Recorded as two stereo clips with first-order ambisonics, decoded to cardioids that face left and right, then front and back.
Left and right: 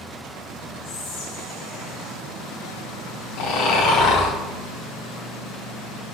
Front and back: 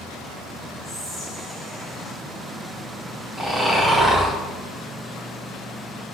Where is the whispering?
95° left, 0.9 m.